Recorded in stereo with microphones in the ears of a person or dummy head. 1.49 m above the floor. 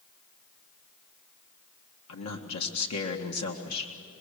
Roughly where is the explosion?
I don't hear an explosion.